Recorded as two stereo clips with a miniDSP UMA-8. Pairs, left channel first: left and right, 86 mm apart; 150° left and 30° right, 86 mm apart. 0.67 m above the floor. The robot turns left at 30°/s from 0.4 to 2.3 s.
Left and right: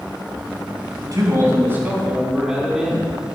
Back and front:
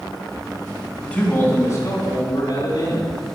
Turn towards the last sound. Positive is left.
turn(degrees=-165)